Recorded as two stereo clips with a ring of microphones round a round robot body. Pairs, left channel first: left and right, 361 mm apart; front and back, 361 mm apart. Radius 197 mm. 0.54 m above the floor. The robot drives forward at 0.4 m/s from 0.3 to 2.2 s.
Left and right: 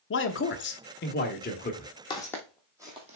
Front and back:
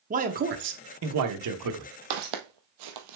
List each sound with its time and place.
0.1 s a man speaking: 125° left, 0.8 m; by 1.9 s 155° left, 1.2 m
2.1 s footsteps: 170° left, 1.2 m; by 3.2 s 160° right, 1.1 m